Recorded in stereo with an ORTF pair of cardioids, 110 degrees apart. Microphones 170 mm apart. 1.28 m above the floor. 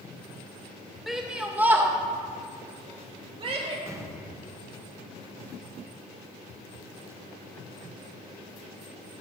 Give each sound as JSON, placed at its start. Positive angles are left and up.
{"t": 1.1, "sound": "a shout", "azimuth_deg": 0, "distance_m": 1.8}
{"t": 3.9, "sound": "an explosion", "azimuth_deg": -15, "distance_m": 1.2}